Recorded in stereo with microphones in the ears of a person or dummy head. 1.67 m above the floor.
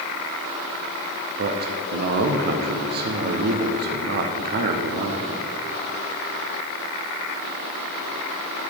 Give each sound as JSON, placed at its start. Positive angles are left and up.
{"t": 1.4, "sound": "a man speaking", "side_deg": -50, "distance_m": 0.7}